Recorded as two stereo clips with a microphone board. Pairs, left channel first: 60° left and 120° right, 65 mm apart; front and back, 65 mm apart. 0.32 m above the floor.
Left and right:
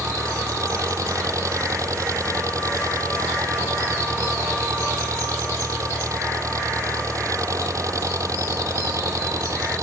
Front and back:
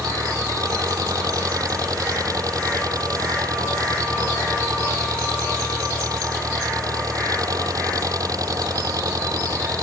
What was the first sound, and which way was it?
An engine running, 155° right.